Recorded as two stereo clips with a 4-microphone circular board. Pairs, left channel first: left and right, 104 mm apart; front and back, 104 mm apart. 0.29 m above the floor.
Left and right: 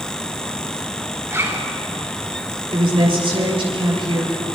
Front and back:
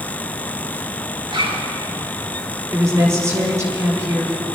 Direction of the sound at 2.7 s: 120° right.